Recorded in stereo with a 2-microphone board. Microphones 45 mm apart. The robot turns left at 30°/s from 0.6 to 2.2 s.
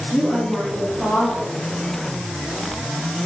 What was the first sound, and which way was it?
A woman speaking, 35° left (ahead or behind).